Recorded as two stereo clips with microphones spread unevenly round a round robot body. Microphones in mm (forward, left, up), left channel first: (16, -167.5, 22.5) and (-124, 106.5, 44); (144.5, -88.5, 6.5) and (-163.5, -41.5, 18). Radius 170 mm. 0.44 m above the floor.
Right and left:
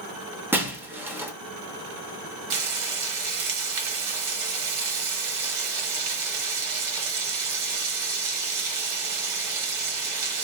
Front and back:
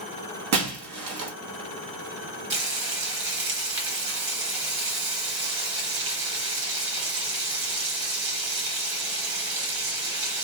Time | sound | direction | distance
0.5 | breaking glass | 155° right | 0.8 m
2.5 | frying | 140° left | 1.0 m